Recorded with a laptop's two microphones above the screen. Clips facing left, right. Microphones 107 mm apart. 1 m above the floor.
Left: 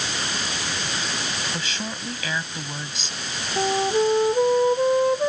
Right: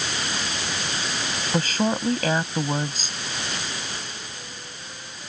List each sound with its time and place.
1.5 s a woman speaking: 45° right (ahead or behind)
3.6 s a flute: 85° left